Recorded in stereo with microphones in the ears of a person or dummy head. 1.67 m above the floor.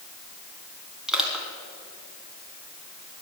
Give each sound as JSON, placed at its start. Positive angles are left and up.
{"t": 1.1, "sound": "crushing", "side_deg": -5, "distance_m": 3.5}